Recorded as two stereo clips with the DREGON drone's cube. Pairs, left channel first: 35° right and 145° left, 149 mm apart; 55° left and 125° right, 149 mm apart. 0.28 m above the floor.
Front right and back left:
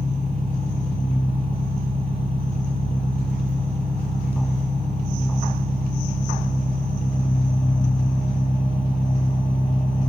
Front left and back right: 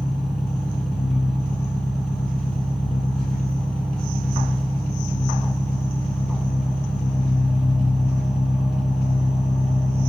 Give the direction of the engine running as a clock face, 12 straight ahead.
1 o'clock.